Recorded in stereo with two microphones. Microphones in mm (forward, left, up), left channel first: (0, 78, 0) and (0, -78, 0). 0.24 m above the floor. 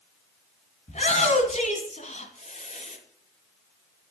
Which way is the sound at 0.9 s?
50° left (ahead or behind).